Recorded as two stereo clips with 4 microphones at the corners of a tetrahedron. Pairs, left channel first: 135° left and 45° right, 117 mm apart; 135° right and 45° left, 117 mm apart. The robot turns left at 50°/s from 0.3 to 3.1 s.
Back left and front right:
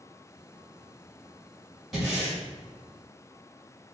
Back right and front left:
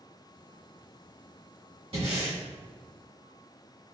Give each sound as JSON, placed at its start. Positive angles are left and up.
{"t": 1.9, "sound": "breathing", "azimuth_deg": 45, "distance_m": 2.0}